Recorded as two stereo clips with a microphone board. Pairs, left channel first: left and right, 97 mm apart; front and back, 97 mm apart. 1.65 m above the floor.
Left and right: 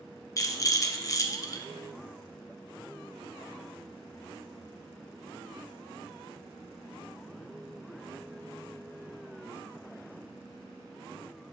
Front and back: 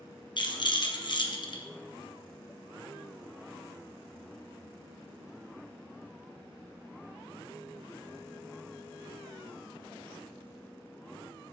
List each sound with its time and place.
0.4 s a rattle: 35° left, 1.2 m